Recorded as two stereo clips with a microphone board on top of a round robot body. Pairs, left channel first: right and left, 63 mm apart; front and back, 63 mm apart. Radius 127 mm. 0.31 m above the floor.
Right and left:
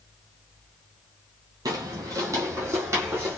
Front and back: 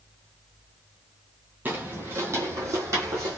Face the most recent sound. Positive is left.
turn(degrees=140)